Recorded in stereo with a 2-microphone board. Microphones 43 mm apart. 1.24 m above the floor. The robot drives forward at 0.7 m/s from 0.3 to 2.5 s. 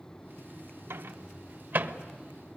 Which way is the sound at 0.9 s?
70° right (ahead or behind).